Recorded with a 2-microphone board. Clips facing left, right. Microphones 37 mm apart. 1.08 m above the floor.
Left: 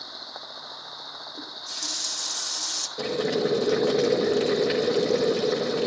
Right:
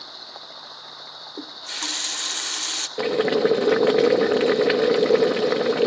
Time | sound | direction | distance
1.4 | a running tap | 55° right (ahead or behind) | 0.8 m
3.0 | boiling | 45° right (ahead or behind) | 1.9 m